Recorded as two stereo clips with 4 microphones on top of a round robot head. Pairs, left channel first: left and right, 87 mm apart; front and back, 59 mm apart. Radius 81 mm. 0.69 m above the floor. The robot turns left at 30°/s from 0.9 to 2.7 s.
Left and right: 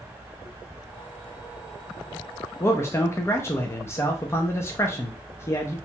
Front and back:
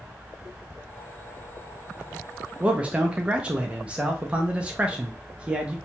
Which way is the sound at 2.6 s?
125° left.